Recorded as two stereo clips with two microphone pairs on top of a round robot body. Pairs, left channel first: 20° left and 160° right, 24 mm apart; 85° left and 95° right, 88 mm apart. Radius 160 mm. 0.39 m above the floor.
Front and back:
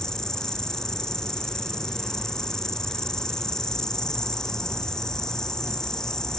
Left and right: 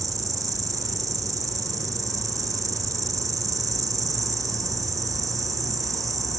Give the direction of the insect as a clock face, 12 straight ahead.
1 o'clock.